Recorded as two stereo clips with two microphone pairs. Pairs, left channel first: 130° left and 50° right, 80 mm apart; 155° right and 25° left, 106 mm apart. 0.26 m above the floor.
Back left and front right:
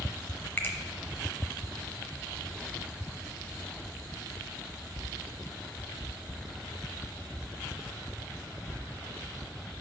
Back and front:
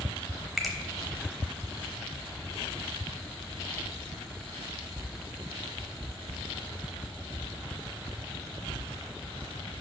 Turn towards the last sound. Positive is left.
turn(degrees=110)